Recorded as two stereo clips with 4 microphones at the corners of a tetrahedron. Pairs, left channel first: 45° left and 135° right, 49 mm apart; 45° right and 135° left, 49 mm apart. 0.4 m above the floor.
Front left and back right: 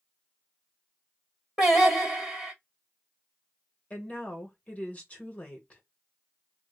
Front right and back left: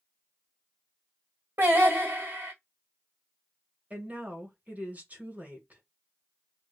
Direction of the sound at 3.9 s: 95° left.